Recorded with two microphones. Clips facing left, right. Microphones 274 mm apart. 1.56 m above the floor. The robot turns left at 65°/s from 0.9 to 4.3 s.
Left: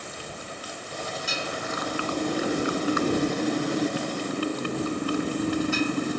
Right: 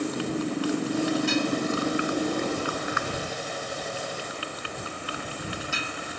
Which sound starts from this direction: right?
A motorcycle, at 0.0 s.